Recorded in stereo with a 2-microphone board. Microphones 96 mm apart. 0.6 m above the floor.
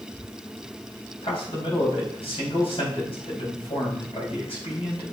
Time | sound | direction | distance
1.2 | a man speaking | 75° left (ahead or behind) | 4.5 m